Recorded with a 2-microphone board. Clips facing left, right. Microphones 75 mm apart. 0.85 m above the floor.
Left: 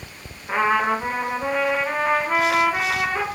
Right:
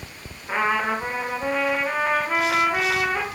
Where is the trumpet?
5° left (ahead or behind), 1.8 m.